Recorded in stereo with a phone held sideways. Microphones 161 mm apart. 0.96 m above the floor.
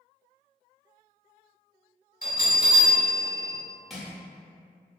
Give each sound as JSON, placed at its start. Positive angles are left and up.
{"t": 2.2, "sound": "a bell", "side_deg": 65, "distance_m": 1.5}
{"t": 3.9, "sound": "crushing", "side_deg": 0, "distance_m": 0.7}